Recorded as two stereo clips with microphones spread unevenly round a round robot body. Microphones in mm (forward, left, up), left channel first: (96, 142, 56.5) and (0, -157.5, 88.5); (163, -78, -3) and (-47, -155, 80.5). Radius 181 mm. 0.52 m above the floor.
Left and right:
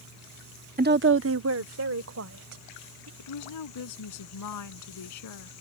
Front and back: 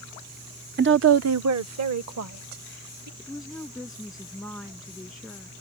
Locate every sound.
0.8 s a woman speaking: 135° right; by 3.1 s 160° right
3.2 s a woman speaking: 110° left